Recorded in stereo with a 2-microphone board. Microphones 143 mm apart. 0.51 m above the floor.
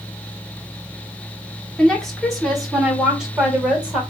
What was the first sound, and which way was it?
A woman speaking, 5° left (ahead or behind).